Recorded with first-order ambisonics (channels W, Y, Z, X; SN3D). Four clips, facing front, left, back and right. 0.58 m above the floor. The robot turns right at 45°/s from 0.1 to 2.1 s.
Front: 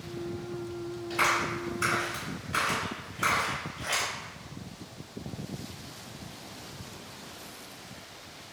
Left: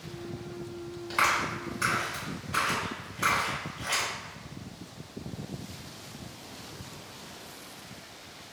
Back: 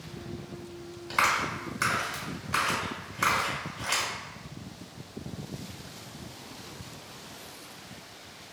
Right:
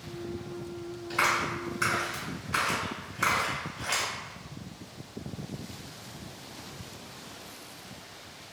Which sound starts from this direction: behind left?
A clap, at 1.1 s.